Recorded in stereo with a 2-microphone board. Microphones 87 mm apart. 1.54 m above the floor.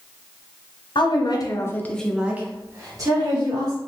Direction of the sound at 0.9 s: 60° left (ahead or behind).